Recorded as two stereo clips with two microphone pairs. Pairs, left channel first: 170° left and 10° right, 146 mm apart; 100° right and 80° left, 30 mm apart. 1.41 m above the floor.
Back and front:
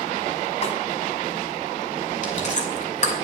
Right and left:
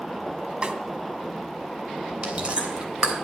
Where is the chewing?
135° left, 3.5 m.